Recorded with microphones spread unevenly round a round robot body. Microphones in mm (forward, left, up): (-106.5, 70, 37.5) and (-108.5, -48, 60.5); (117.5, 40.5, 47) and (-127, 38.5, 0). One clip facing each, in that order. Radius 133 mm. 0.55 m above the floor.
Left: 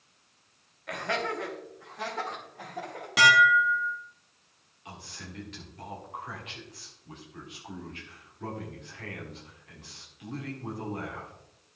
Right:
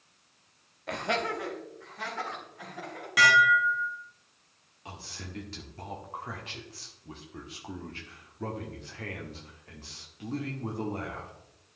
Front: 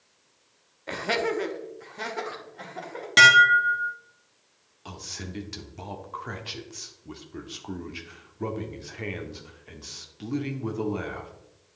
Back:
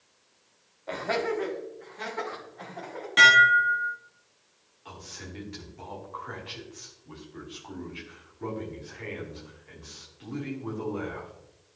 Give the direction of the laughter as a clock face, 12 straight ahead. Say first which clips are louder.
Right 1 dB, front 1 dB; 2 o'clock.